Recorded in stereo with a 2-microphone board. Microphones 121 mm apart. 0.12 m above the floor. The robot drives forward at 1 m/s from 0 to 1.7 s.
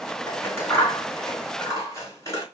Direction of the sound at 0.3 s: 20° left (ahead or behind).